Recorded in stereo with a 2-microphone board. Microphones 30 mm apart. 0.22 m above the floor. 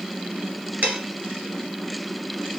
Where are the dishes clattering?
65° right (ahead or behind), 2 m.